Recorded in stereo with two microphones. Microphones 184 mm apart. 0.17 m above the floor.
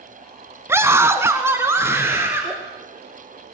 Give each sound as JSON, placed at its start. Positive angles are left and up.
{"t": 0.7, "sound": "a scream", "side_deg": -15, "distance_m": 1.1}